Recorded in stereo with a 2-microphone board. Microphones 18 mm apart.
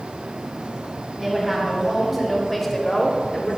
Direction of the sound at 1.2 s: 15° right (ahead or behind).